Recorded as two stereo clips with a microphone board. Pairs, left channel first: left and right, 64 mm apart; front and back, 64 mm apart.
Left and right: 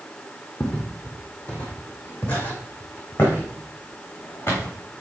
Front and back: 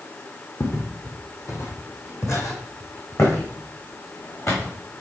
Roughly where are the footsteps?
Ahead.